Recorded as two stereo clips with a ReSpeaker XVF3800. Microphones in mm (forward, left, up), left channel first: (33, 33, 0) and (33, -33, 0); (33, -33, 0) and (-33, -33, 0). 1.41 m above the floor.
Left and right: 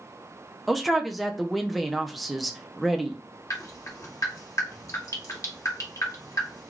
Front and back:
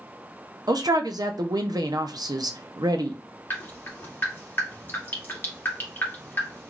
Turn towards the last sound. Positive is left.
turn(degrees=55)